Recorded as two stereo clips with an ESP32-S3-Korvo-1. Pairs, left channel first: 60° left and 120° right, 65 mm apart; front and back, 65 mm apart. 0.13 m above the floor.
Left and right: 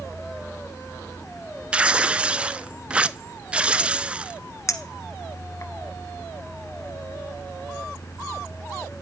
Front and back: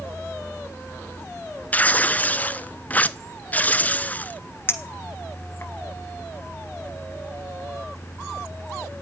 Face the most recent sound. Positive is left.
turn(degrees=40)